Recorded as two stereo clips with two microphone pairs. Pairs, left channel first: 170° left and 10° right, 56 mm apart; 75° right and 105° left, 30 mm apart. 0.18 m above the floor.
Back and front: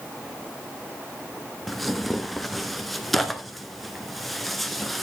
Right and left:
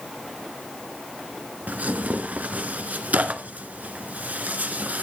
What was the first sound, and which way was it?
Tearing paper, 85° left.